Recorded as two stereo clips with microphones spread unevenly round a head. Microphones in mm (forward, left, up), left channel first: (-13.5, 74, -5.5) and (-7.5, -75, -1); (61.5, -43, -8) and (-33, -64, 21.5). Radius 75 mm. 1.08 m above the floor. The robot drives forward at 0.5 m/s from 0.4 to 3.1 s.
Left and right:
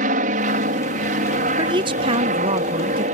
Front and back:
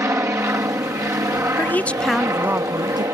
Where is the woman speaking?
30° right; by 3.0 s 125° right.